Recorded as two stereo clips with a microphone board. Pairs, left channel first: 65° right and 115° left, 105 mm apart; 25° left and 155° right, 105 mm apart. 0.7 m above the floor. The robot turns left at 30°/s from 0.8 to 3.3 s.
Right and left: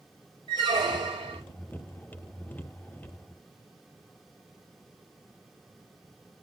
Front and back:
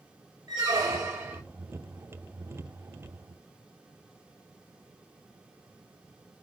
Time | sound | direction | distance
0.5 | a squeak | 150° left | 0.7 m